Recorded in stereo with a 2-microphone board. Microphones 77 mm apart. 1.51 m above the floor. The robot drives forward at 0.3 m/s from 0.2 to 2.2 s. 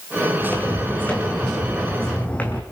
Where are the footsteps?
15° left (ahead or behind), 5.5 m; by 2.6 s 20° left (ahead or behind), 3.5 m.